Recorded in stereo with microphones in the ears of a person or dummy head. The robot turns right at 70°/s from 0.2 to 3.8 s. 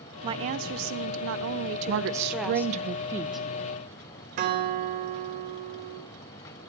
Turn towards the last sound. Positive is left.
turn(degrees=-50)  # may be behind; listen again after turning